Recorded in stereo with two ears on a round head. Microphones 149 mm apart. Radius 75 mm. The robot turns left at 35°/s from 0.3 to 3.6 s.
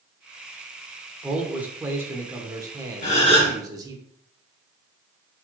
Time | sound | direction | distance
1.2 | a man speaking | 5° right (ahead or behind) | 0.8 m
3.0 | a gasp | 50° left (ahead or behind) | 1.4 m